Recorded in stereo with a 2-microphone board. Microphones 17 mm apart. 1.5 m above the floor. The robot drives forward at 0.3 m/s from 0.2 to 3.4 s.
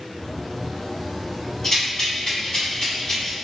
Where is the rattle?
35° left (ahead or behind), 1.9 m; by 3.3 s 40° left (ahead or behind), 1.7 m.